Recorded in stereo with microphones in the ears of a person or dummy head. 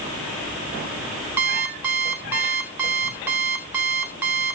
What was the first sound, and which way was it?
An alarm clock, 5° right (ahead or behind).